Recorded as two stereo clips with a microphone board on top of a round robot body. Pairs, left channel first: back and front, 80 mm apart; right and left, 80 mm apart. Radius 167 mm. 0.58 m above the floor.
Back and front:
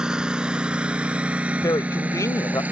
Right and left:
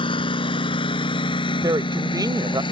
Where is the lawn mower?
80° right; by 2.7 s 70° right.